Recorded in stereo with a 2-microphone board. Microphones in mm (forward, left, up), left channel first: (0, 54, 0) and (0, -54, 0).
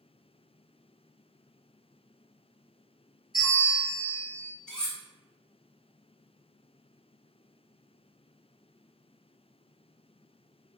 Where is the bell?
35° left (ahead or behind), 1.5 m.